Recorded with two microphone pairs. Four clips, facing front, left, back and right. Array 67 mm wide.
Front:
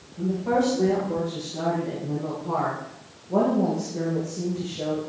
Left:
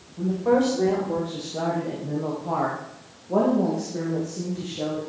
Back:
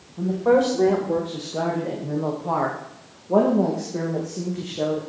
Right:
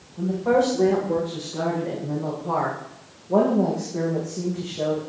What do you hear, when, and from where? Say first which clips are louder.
0.2 s a woman speaking: right 1 dB, back 5 dB; 175° left, 9 m; by 5.0 s 175° right, 7 m